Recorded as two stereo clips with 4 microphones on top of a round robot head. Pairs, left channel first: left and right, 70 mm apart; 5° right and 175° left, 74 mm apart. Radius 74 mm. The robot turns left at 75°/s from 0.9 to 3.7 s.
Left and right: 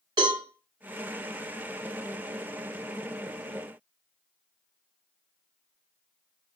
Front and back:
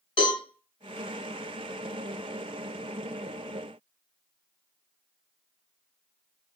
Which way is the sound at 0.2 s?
45° right.